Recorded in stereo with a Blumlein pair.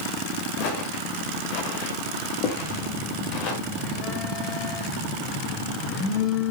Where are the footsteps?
45° left, 4.5 m.